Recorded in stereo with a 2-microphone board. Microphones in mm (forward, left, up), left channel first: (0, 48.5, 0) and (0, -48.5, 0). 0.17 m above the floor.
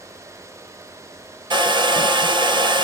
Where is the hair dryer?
55° right (ahead or behind), 0.8 m.